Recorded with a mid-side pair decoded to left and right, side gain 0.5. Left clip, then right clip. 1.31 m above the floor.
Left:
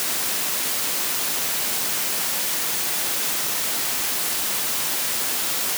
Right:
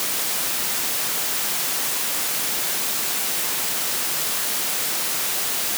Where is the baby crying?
No baby crying in this recording.